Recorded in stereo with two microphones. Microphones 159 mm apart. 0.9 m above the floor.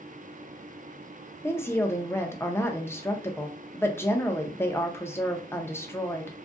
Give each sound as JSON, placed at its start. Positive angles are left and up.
{"t": 1.4, "sound": "a woman speaking", "side_deg": 15, "distance_m": 0.5}